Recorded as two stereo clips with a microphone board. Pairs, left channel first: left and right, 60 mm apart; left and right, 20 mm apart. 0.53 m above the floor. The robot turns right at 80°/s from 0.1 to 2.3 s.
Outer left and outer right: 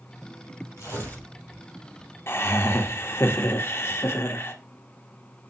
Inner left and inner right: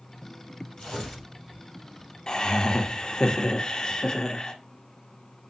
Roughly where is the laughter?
Left.